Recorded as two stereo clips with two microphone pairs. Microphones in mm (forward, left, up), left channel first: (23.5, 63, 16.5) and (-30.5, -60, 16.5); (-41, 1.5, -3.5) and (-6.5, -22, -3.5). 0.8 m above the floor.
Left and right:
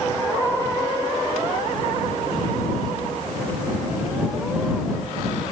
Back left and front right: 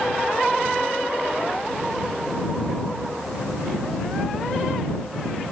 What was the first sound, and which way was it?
Only background noise.